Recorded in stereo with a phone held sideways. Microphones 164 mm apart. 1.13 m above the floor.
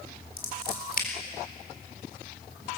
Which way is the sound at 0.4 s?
65° left (ahead or behind).